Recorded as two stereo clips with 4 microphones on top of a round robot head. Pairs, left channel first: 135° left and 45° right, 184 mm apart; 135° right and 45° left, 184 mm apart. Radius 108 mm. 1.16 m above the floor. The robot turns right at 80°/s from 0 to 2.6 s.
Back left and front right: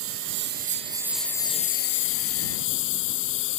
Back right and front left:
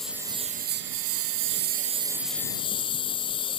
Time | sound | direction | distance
0.0 | a lawn mower | 50° right | ?